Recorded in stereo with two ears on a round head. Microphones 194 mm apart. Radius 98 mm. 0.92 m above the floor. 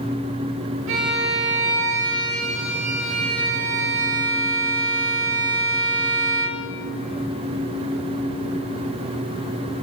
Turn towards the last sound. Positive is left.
turn(degrees=-65)  # may be behind; listen again after turning